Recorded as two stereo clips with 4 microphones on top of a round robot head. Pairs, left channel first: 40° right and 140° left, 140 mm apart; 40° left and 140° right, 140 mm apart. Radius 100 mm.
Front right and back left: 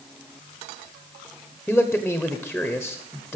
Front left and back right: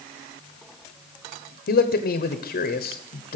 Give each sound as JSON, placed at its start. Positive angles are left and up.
{"t": 1.7, "sound": "a man speaking", "azimuth_deg": 45, "distance_m": 1.1}